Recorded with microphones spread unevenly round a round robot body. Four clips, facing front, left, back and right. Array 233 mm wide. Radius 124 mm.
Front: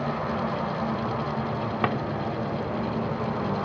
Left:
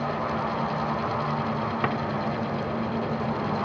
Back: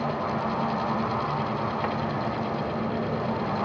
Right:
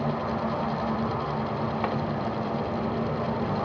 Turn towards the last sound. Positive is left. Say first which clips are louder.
# left 2 dB, front 2 dB
turn(degrees=30)